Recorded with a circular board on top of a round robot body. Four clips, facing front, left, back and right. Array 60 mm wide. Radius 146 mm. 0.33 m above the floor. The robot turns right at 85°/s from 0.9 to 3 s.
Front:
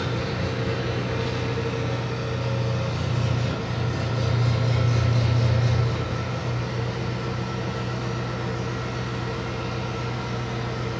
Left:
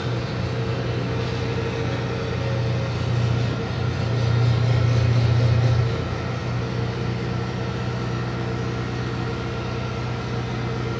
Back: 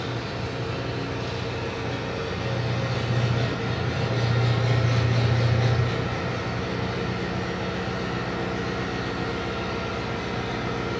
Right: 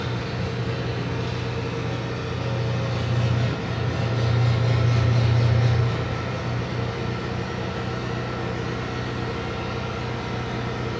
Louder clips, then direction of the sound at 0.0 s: Left 1 dB, front 3 dB; 5° left.